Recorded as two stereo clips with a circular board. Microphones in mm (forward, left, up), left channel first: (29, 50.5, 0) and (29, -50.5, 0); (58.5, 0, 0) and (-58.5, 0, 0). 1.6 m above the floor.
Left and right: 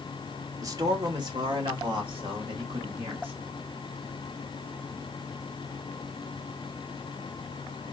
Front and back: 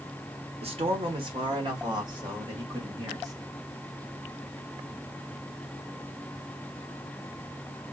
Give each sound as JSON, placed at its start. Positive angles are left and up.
{"t": 0.6, "sound": "a man speaking", "azimuth_deg": -145, "distance_m": 0.9}